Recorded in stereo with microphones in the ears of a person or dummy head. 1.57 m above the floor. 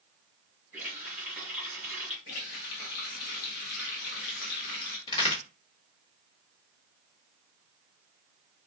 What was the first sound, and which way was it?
A running tap, 15° right (ahead or behind).